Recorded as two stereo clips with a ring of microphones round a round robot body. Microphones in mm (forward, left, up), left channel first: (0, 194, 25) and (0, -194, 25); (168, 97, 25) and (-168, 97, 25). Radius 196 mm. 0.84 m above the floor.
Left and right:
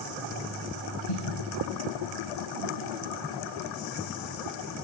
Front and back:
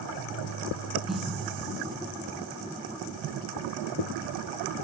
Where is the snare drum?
90° left, 8 m.